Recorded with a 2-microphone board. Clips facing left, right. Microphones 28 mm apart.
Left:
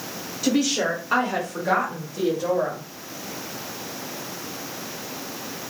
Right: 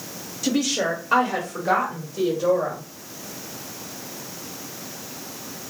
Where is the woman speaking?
20° left (ahead or behind), 1.6 m; by 2.8 s 10° left (ahead or behind), 1.7 m.